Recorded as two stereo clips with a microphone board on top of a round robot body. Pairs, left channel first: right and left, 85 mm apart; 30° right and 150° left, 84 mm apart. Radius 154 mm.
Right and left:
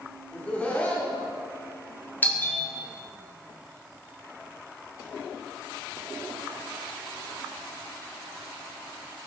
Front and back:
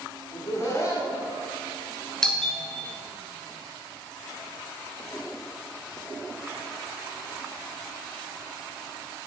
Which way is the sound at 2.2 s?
105° right.